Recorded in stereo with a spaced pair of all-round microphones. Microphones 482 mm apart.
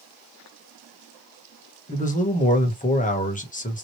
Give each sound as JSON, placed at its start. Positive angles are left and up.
{"t": 1.9, "sound": "a man speaking", "side_deg": 15, "distance_m": 1.3}